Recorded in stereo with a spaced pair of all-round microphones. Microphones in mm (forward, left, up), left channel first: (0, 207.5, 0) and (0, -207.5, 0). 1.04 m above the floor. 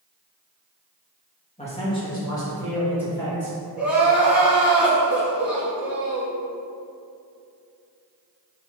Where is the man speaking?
15° left (ahead or behind), 1.6 m; by 3.7 s 5° left (ahead or behind), 3.5 m.